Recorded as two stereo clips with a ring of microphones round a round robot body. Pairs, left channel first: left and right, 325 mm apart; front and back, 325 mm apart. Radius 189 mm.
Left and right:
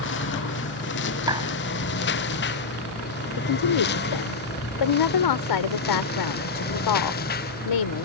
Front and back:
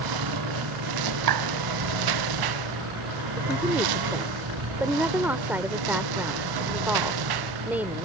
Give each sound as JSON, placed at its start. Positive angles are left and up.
{"t": 0.0, "sound": "a lawn mower", "azimuth_deg": 150}
{"t": 1.3, "sound": "a clap", "azimuth_deg": -170}
{"t": 3.4, "sound": "a woman speaking", "azimuth_deg": 95}